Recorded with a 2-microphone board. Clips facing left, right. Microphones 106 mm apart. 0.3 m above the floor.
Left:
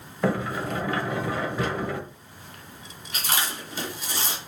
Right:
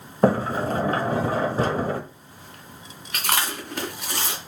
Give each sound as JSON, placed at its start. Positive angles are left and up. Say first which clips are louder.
{"t": 0.2, "sound": "a sliding door", "louder": "right 6 dB", "side_deg": -35, "distance_m": 1.3}
{"t": 3.1, "sound": "chewing", "louder": "right 3 dB", "side_deg": -65, "distance_m": 3.5}